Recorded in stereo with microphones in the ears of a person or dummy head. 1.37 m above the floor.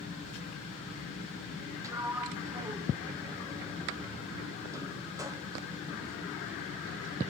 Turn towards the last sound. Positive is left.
turn(degrees=-15)  # may be behind; listen again after turning